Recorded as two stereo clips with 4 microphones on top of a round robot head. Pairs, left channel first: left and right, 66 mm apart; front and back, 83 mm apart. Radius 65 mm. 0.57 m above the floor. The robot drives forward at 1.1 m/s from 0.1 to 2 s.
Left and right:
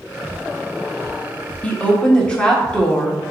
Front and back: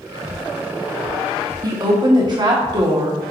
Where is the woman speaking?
155° left, 1.1 m; by 3.2 s 165° left, 1.4 m.